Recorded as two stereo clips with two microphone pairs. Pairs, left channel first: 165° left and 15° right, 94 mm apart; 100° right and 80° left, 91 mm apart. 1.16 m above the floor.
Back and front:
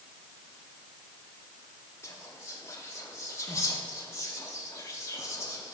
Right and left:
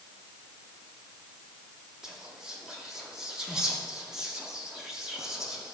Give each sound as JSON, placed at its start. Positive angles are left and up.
{"t": 2.0, "sound": "whispering", "azimuth_deg": 155, "distance_m": 0.6}